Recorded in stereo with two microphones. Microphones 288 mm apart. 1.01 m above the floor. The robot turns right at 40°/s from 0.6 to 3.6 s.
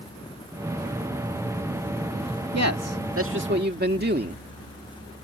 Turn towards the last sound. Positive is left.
turn(degrees=-35)